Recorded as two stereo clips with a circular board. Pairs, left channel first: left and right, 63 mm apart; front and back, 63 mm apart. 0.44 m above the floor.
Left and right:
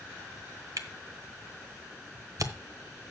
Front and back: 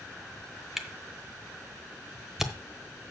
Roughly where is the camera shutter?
Right.